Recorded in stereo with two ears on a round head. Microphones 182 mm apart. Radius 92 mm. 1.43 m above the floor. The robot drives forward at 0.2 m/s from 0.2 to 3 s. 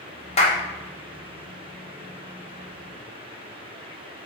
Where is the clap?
30° left (ahead or behind), 1.4 m.